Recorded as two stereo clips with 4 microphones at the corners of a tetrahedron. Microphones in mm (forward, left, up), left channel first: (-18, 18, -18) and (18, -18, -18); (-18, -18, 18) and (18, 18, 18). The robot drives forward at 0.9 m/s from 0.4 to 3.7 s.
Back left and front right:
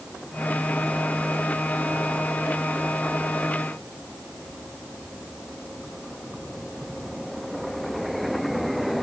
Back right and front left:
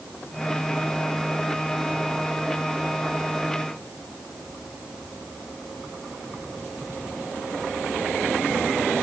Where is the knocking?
No knocking in this recording.